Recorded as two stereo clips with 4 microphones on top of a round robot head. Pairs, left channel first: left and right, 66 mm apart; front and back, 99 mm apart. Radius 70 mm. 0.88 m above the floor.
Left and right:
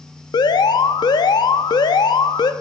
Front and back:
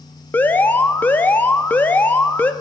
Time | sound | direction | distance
0.3 | an alarm | 75° left | 0.7 m